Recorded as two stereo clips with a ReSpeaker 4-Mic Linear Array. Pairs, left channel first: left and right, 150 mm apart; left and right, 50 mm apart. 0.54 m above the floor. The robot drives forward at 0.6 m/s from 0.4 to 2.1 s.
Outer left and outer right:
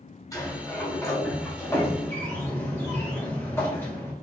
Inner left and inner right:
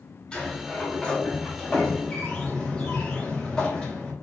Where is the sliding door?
20° left (ahead or behind), 2 m; by 4.1 s 15° left (ahead or behind), 3 m.